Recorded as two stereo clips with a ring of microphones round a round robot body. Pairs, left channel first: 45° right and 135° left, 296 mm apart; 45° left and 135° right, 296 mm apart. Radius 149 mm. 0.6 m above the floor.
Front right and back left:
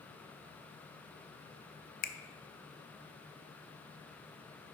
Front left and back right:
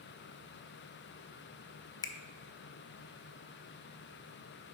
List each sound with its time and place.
2.0 s a finger snap: 20° right, 0.5 m